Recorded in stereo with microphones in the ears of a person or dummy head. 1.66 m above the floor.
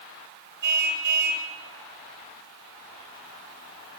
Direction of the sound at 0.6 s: 55° right (ahead or behind).